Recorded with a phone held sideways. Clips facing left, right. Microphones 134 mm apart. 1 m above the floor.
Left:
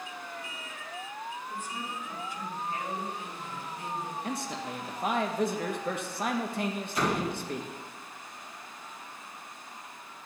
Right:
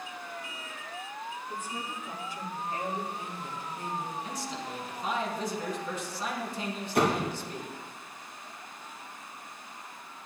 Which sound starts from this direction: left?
A man speaking, at 4.2 s.